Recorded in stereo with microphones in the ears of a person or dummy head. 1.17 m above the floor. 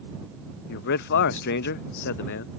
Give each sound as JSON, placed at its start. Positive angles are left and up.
{"t": 0.7, "sound": "a man speaking", "side_deg": 60}